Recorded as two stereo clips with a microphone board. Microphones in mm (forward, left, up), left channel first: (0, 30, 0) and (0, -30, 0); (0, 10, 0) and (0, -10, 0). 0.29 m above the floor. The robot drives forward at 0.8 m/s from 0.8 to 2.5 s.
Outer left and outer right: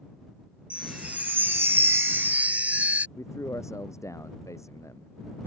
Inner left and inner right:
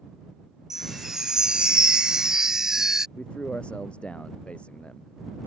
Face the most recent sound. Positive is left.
turn(degrees=60)  # may be behind; listen again after turning